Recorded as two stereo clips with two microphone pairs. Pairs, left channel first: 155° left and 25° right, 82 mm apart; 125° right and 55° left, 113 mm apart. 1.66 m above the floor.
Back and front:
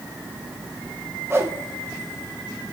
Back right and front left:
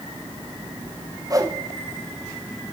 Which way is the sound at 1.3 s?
15° left.